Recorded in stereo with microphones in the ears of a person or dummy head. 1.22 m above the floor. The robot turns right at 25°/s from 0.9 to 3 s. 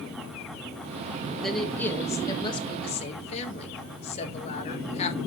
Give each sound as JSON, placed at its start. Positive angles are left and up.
{"t": 1.4, "sound": "a woman speaking", "azimuth_deg": -5, "distance_m": 1.7}